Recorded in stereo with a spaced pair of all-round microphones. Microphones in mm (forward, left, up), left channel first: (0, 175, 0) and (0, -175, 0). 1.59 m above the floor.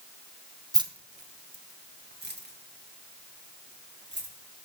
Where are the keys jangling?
10° right (ahead or behind), 0.6 m; by 4.3 s 30° right (ahead or behind), 3 m.